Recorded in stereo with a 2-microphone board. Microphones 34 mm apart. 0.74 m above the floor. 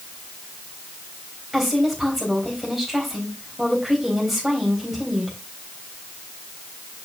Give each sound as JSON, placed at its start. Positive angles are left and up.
{"t": 1.5, "sound": "a woman speaking", "side_deg": -5, "distance_m": 3.5}